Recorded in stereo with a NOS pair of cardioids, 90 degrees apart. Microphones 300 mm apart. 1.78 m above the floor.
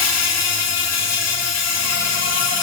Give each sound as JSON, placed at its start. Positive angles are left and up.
{"t": 0.0, "sound": "an insect", "azimuth_deg": 60, "distance_m": 4.0}